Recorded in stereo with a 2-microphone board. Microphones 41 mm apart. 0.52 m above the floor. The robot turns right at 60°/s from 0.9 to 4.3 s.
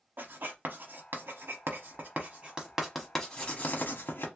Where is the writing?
55° right (ahead or behind), 1.0 m; by 4.3 s 75° left (ahead or behind), 1.0 m.